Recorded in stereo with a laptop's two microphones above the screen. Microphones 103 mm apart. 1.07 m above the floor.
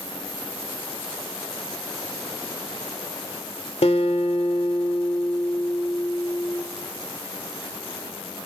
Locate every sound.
3.8 s a guitar: 75° left (ahead or behind), 1.8 m